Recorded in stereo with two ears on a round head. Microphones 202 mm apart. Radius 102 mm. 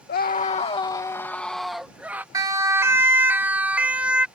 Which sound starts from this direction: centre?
A siren, at 2.3 s.